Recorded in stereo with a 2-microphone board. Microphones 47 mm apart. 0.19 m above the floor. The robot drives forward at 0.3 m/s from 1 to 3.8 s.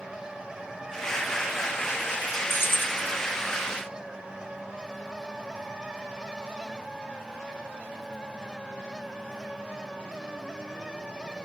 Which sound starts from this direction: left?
Keys jangling, at 2.5 s.